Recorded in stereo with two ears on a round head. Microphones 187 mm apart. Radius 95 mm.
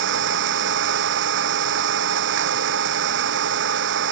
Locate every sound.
0.0 s an engine running: 65° right (ahead or behind)